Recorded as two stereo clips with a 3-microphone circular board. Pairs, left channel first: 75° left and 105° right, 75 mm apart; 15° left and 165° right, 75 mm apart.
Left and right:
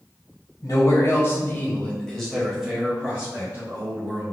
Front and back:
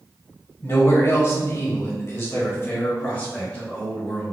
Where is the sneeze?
No sneeze in this recording.